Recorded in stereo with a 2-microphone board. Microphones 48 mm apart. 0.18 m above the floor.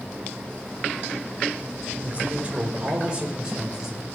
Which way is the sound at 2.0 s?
35° right (ahead or behind).